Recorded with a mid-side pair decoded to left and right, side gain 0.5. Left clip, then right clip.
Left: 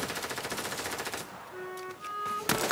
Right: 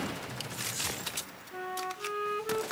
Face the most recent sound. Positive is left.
turn(degrees=-40)